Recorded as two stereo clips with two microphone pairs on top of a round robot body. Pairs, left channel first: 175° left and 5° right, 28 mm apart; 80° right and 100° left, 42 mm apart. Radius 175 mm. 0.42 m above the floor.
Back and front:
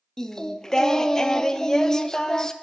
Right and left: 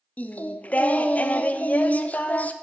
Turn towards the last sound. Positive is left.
turn(degrees=-125)